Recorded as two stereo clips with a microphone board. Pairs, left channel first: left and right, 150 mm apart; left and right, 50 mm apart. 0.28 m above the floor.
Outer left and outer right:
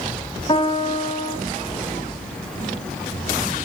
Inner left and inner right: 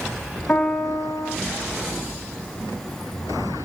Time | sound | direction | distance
0.5 | a piano | 35° left (ahead or behind) | 1.5 m